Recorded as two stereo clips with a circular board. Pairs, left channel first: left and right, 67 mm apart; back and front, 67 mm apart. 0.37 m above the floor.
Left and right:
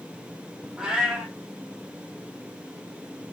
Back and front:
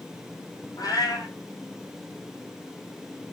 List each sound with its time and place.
0.8 s a cat meowing: 170° right, 1.1 m